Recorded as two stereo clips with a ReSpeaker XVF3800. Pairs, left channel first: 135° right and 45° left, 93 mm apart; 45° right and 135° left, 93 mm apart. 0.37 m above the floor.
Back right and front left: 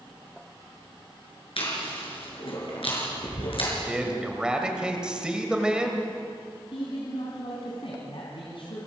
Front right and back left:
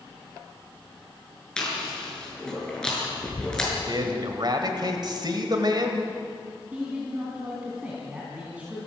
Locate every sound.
1.6 s chewing: 125° right, 6 m
3.9 s a man speaking: 125° left, 1.9 m
6.7 s a man speaking: 150° right, 3.5 m